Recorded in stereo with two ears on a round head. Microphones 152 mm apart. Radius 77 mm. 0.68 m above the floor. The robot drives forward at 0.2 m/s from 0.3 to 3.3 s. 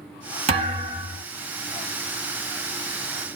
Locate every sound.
0.5 s a thud: 35° right (ahead or behind), 1.4 m; by 1.2 s 40° right (ahead or behind), 1.3 m